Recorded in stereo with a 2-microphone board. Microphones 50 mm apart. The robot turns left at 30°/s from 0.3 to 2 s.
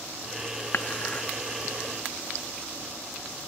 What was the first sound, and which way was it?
Dishes clattering, 50° left (ahead or behind).